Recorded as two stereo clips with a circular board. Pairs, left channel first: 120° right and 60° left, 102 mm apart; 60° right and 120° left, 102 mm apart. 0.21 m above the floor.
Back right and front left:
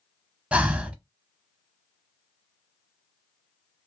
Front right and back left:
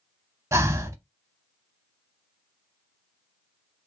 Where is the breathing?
125° left, 0.6 m.